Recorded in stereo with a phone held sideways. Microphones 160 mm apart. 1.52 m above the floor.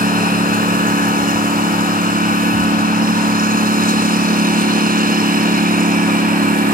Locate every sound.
0.0 s a lawn mower: 65° right (ahead or behind)